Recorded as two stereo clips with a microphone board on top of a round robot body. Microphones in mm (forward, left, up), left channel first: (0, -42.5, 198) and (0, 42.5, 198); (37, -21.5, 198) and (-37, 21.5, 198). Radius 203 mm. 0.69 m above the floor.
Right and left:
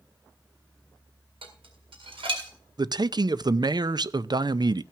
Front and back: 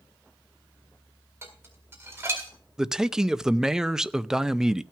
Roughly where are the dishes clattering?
Left.